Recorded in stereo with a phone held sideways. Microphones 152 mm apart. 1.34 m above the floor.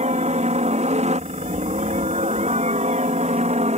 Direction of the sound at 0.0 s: 45° right (ahead or behind).